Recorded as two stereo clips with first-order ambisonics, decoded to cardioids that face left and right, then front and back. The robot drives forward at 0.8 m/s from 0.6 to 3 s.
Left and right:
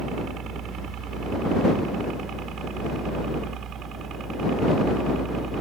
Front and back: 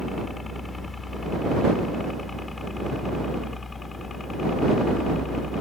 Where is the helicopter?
75° right; by 5.6 s 55° right.